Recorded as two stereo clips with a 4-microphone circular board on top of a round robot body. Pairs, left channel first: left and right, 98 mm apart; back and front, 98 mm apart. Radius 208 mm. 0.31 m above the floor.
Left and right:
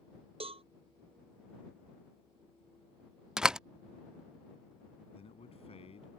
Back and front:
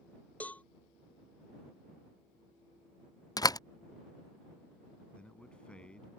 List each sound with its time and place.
0.4 s a cowbell: 105° right
3.4 s a door slam: 170° right
5.1 s a man speaking: 100° left